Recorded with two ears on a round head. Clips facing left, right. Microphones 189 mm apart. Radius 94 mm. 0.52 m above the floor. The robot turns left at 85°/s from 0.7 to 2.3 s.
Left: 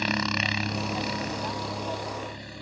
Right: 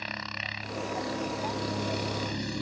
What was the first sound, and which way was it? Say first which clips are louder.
A helicopter: left 12 dB; 70° left.